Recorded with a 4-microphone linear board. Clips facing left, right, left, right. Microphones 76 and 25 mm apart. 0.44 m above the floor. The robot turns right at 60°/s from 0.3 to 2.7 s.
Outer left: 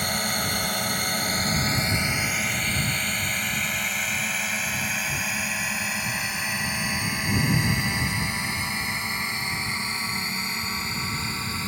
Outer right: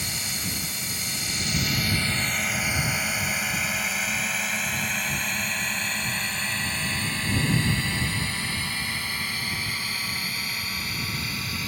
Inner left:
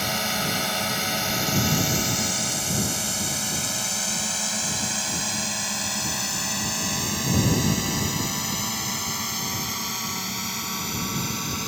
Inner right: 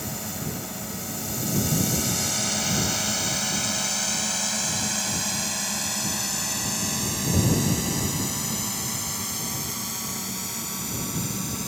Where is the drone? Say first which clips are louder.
Outer left 7 dB, inner left 8 dB; 55° left (ahead or behind); by 11.7 s 30° left (ahead or behind).